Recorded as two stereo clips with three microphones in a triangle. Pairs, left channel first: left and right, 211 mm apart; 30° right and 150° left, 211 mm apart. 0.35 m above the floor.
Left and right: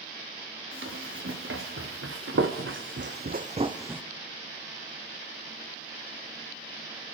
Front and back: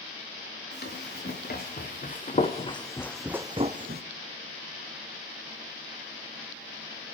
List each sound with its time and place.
0.7 s running footsteps: 70° right, 3 m; by 4.0 s 175° right, 1.0 m